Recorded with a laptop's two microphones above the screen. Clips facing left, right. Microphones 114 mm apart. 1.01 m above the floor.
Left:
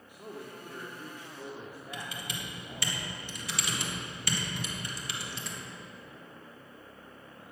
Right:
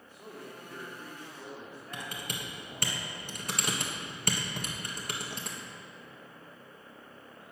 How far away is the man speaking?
About 2.0 m.